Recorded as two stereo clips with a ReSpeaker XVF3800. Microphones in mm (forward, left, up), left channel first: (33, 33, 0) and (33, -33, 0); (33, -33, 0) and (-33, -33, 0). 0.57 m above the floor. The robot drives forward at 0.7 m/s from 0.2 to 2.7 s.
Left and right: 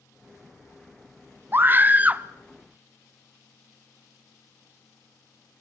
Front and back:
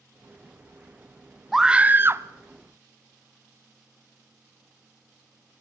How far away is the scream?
About 0.6 m.